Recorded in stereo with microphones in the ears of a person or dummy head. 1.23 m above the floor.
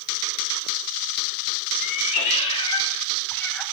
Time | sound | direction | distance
1.8 | a cat meowing | 35° left (ahead or behind) | 1.2 m